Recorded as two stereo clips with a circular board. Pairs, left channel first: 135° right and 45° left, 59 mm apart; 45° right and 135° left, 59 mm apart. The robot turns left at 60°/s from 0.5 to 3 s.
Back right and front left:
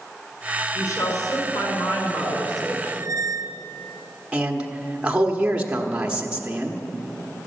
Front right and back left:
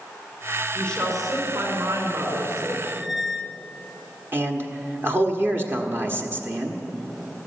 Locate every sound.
0.8 s a woman speaking: 110° right, 5 m; by 2.7 s 130° left, 5 m
2.8 s a squeak: 55° left, 0.7 m; by 3.6 s 45° left, 0.7 m
4.3 s a man speaking: 105° left, 1.2 m